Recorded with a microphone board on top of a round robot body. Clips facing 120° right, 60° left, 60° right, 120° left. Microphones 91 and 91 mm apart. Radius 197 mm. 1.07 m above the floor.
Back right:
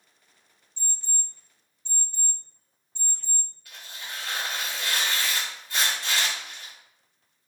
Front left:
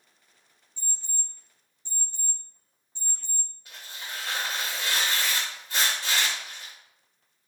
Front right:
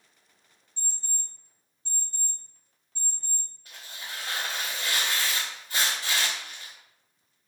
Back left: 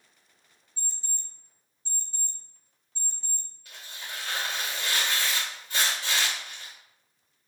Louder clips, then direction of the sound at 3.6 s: Even, even; 5° right.